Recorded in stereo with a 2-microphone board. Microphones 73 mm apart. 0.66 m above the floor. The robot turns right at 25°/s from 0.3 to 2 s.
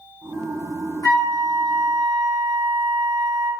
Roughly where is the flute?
Left.